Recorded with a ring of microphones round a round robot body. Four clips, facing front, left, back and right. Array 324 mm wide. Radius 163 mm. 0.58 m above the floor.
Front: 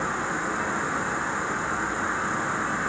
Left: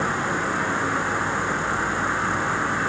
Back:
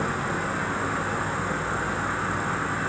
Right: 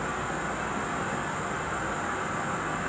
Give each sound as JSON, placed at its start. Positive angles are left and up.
{"t": 0.0, "sound": "an insect", "azimuth_deg": 85, "distance_m": 0.7}